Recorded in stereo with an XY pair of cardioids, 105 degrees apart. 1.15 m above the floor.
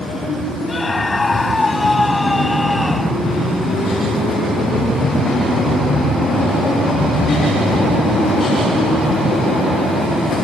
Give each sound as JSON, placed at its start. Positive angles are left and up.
{"t": 0.7, "sound": "a scream", "azimuth_deg": 25}